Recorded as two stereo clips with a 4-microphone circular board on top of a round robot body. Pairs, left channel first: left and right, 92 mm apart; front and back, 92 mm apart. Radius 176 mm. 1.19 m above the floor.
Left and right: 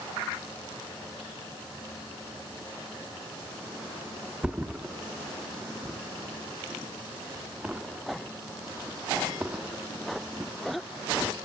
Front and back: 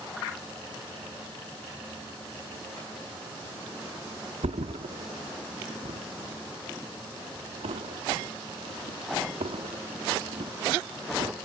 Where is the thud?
170° right, 1.2 m.